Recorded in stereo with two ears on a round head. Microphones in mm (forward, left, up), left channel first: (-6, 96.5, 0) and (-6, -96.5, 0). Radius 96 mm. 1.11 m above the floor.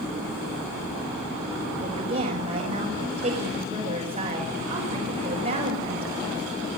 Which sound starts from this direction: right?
A woman speaking, at 1.8 s.